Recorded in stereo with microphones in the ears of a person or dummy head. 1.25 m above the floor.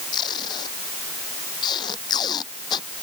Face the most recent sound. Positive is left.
turn(degrees=30)  # may be behind; listen again after turning